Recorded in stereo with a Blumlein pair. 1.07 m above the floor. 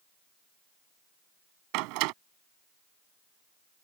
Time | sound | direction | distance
1.7 | a door slam | 45° right | ?